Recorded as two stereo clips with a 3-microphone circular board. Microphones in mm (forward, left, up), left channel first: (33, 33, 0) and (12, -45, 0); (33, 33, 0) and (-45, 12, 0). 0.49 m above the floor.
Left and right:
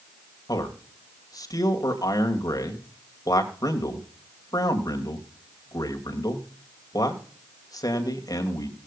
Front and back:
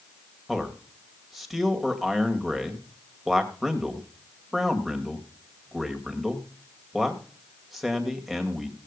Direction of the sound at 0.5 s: 105° left.